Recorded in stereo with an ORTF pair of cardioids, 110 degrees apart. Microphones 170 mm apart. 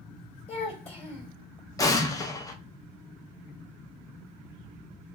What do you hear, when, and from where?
0.5 s a child speaking: 40° left, 2.5 m
1.8 s an explosion: 20° left, 0.8 m